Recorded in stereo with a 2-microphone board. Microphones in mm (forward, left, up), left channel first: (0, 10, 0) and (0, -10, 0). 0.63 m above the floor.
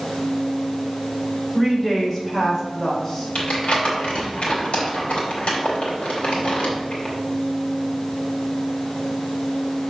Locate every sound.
1.5 s a woman speaking: 5° left (ahead or behind), 3 m; by 3.2 s 15° left (ahead or behind), 3.5 m
3.4 s crumpling: 75° left (ahead or behind), 3 m